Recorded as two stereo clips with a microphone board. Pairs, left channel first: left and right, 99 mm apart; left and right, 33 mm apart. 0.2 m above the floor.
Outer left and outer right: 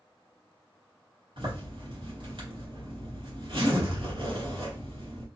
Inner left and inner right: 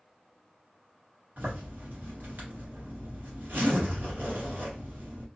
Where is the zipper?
60° right (ahead or behind), 1.4 m.